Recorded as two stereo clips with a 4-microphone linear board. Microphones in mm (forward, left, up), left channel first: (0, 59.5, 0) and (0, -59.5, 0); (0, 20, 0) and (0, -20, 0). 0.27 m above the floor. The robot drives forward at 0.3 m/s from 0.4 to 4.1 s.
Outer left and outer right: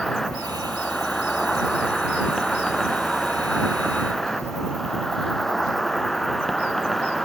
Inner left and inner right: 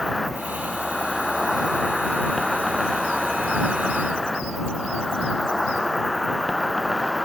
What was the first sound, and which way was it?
An insect, 5° left (ahead or behind).